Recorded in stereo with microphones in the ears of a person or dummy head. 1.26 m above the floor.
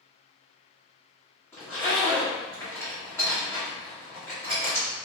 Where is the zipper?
15° left (ahead or behind), 1.2 m.